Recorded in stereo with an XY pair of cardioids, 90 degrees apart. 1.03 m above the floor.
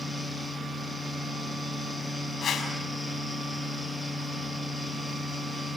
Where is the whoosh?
60° left, 5 m.